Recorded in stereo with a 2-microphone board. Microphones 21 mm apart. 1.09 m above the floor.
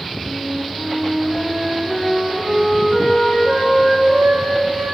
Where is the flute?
20° left (ahead or behind), 3 m.